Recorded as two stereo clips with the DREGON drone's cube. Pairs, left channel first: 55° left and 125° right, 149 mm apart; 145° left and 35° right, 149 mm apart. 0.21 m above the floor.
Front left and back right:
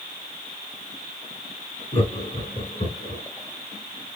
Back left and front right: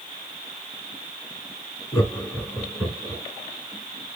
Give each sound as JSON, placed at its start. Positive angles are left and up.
{"t": 1.9, "sound": "laughter", "azimuth_deg": 85, "distance_m": 1.9}